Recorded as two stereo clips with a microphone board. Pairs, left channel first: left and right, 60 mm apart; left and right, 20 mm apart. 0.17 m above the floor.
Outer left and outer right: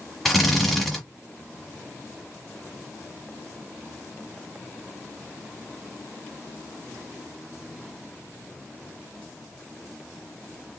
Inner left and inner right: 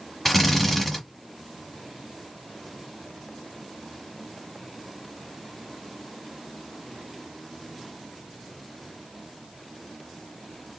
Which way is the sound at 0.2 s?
Centre (ahead or behind).